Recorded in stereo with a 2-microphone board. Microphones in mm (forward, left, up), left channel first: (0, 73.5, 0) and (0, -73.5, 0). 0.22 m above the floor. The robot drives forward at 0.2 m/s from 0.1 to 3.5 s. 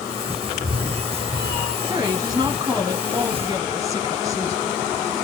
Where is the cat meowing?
45° left (ahead or behind), 2.5 m; by 1.8 s 50° left (ahead or behind), 2.5 m.